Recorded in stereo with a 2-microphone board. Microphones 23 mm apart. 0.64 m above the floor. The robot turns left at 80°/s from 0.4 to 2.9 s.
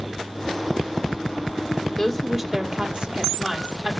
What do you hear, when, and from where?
2.0 s a woman speaking: 25° left, 1.8 m; by 3.9 s 50° right, 1.8 m